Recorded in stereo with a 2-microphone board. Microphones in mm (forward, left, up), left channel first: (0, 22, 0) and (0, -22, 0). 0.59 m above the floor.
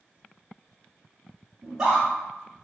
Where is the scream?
15° right (ahead or behind), 1.0 m.